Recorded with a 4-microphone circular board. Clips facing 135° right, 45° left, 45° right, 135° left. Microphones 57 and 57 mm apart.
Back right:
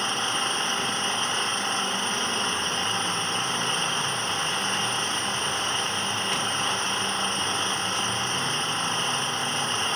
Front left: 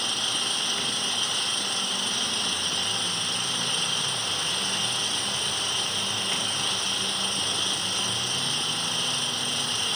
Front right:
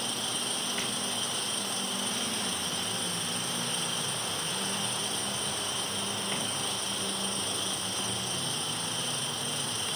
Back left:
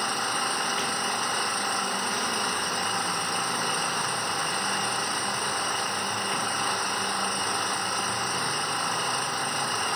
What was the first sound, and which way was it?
An engine running, 170° left.